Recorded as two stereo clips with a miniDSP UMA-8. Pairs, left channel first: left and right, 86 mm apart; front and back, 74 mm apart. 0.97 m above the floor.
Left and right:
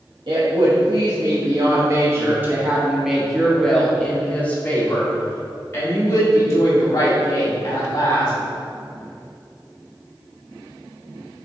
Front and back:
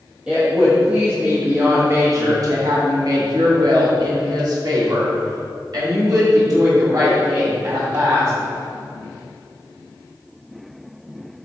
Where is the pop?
I don't hear a pop.